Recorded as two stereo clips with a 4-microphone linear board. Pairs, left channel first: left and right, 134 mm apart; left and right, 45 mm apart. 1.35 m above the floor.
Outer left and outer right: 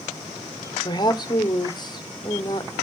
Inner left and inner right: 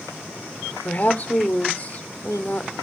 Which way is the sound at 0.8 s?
35° left (ahead or behind).